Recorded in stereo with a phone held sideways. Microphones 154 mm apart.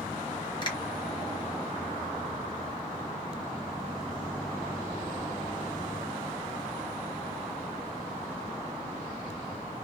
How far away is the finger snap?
About 1.3 m.